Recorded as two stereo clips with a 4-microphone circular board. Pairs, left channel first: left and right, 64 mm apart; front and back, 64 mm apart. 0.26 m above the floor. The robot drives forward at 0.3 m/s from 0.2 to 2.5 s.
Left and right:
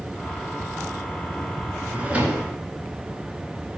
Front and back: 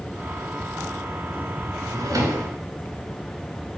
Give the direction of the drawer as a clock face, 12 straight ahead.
5 o'clock.